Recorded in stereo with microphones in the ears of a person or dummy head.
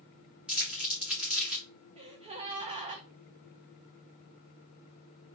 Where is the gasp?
35° right (ahead or behind), 0.6 m.